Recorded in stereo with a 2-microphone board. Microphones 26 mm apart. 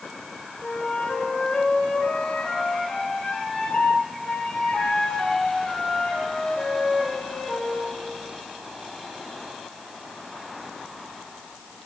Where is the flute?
60° left (ahead or behind), 3.5 m.